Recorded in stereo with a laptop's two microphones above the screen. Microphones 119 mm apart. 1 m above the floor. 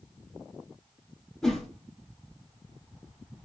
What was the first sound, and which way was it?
A whoosh, 5° left (ahead or behind).